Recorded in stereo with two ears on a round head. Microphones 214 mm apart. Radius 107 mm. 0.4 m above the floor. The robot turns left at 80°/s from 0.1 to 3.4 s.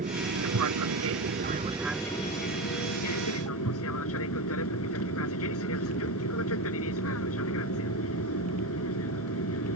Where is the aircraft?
35° right; by 9.8 s 65° left.